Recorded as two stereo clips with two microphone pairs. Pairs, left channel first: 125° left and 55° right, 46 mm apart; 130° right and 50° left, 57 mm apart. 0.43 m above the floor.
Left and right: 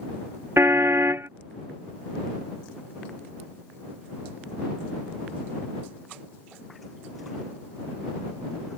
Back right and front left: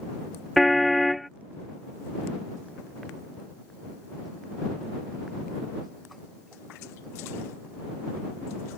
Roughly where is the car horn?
Ahead right.